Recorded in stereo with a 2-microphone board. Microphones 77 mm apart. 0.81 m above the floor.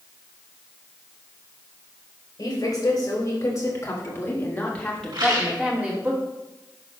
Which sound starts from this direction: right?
A rattle, at 5.1 s.